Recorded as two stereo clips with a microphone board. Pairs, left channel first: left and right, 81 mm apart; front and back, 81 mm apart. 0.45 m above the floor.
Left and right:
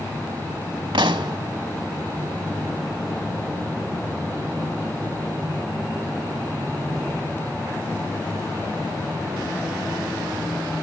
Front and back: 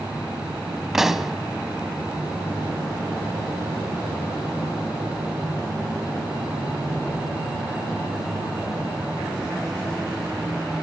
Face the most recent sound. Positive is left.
turn(degrees=-95)